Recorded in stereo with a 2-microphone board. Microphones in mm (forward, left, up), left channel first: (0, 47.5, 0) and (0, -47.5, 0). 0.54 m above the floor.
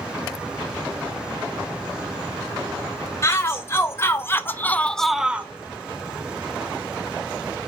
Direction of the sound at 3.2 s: 25° left (ahead or behind).